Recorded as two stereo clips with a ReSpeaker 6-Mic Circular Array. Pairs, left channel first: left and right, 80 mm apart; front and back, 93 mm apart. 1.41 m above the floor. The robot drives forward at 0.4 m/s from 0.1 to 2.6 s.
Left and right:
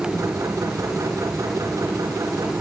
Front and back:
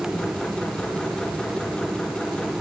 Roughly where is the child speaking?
No child speaking in this recording.